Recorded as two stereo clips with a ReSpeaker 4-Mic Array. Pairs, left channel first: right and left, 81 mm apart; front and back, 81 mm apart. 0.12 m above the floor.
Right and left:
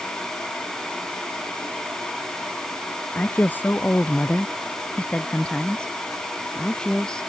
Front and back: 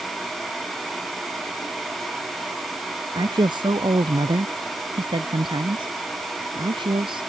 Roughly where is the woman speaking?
Behind right.